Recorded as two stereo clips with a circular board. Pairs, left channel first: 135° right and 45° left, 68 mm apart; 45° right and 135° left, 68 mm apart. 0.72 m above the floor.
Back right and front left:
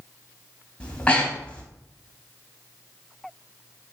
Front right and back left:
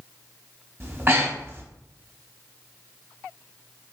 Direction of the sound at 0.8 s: 165° left.